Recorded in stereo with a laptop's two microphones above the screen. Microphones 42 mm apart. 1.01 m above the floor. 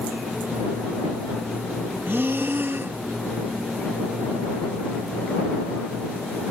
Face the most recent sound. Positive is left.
turn(degrees=-60)  # may be behind; listen again after turning